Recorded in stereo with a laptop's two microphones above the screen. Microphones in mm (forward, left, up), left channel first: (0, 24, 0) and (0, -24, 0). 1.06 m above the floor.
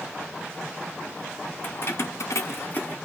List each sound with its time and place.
1.6 s keys jangling: 45° left (ahead or behind), 1.3 m; by 3.0 s 25° left (ahead or behind), 1.1 m